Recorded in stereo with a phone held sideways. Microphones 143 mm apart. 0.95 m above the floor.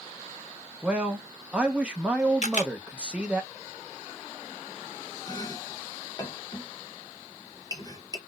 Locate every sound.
0.8 s a man speaking: 10° right (ahead or behind), 0.8 m
2.4 s a camera shutter: 55° left (ahead or behind), 0.8 m
5.3 s chopping: 30° left (ahead or behind), 0.9 m